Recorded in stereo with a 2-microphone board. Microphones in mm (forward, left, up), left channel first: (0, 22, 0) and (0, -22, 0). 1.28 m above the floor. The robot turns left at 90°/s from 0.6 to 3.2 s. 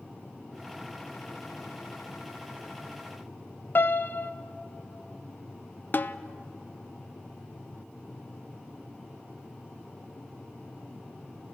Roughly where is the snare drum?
Left.